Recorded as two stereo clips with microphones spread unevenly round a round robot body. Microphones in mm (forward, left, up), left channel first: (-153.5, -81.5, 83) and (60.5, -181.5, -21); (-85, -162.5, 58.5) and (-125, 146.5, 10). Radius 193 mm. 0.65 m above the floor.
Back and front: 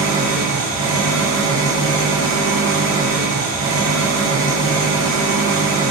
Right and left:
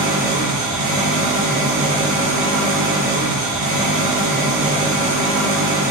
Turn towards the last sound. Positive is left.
turn(degrees=30)